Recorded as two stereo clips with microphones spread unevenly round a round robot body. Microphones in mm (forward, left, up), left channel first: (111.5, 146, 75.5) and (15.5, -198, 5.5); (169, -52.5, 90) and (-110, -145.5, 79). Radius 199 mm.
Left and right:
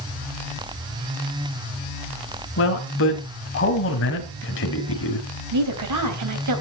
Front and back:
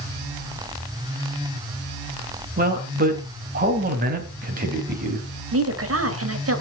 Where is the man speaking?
135° left, 2.5 m.